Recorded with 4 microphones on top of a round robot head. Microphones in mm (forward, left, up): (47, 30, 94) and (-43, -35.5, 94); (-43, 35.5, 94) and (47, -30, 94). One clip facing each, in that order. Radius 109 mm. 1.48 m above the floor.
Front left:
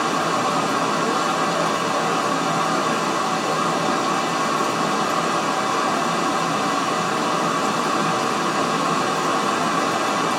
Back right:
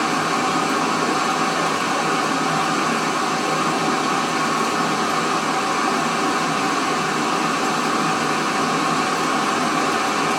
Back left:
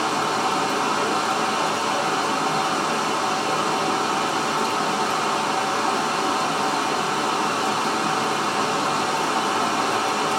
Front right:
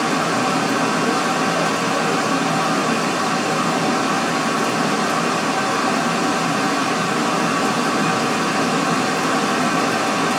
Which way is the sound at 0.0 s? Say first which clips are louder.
Even, front right 3 dB; 50° right.